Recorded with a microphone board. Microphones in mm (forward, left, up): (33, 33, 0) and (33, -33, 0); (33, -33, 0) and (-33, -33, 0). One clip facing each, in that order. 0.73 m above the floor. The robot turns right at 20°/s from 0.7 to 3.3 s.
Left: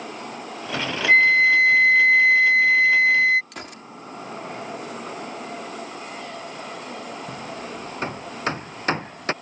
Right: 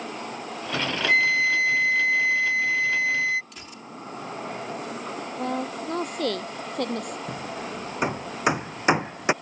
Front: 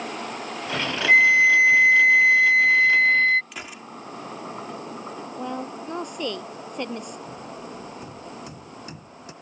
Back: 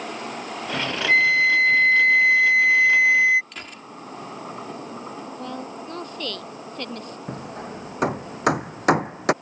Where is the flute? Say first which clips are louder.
Left 6 dB, front 2 dB; 60° left; by 3.4 s 105° left.